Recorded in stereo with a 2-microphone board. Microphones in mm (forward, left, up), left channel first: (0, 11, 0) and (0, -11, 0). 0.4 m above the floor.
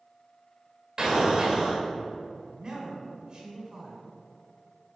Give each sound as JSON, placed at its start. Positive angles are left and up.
{"t": 1.0, "sound": "an explosion", "side_deg": -35, "distance_m": 1.4}
{"t": 2.5, "sound": "a man speaking", "side_deg": -40, "distance_m": 1.4}